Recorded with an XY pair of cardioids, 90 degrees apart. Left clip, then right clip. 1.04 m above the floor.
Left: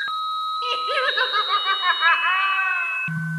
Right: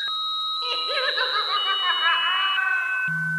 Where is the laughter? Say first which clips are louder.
Left 4 dB; 25° left, 3.5 m; by 3.0 s 50° left, 4.5 m.